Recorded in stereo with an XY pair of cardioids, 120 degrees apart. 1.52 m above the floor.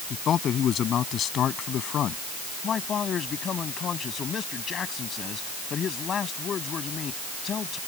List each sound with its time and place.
0.1 s a man speaking: 50° left; by 2.2 s 55° left
2.6 s a man speaking: 45° left